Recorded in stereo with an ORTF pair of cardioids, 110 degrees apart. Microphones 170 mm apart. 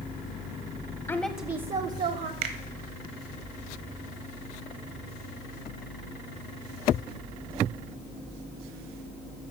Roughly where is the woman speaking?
Ahead.